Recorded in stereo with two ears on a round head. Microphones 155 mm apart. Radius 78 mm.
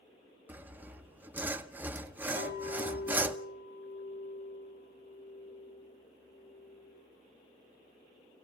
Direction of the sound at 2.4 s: 60° left (ahead or behind).